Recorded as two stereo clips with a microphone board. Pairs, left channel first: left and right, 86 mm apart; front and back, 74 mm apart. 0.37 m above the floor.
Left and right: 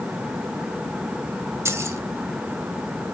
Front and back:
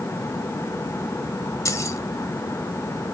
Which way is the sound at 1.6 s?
40° right.